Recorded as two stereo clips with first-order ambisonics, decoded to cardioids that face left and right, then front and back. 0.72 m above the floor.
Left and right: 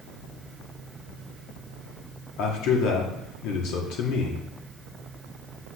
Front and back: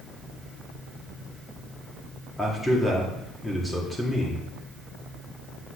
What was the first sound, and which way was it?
A man speaking, 85° left.